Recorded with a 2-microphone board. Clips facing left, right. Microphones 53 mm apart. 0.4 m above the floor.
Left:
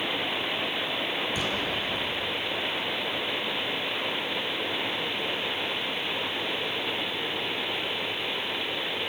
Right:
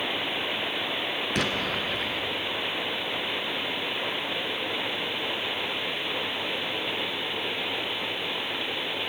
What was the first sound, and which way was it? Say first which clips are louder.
An explosion: right 2 dB; 75° right (ahead or behind).